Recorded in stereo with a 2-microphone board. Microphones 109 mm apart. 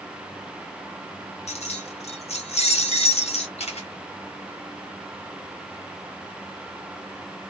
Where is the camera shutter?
80° left, 1.1 m.